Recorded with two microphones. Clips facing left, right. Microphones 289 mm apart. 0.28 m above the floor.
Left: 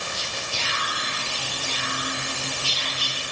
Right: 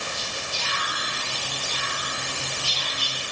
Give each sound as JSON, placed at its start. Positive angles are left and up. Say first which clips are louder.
{"t": 0.1, "sound": "whispering", "louder": "left 1 dB", "side_deg": 75, "distance_m": 7.5}